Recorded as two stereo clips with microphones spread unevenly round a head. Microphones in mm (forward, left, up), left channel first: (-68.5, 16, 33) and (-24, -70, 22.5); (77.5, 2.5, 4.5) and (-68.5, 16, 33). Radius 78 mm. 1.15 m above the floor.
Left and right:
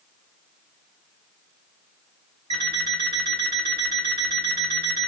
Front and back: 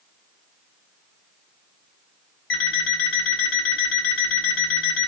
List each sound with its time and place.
2.5 s an alarm clock: 5° right, 2.5 m